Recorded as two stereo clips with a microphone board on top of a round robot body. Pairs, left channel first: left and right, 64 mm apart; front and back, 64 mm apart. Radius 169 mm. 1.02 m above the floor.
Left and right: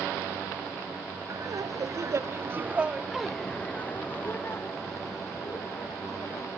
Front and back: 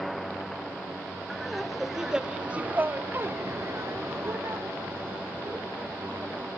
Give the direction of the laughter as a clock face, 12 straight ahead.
3 o'clock.